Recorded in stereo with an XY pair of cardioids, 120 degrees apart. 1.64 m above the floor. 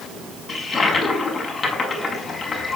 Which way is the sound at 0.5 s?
30° left.